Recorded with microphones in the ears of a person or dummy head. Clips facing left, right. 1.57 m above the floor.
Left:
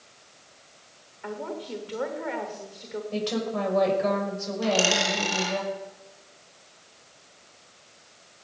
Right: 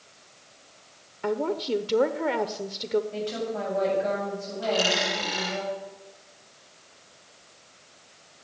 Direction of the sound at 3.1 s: 80° left.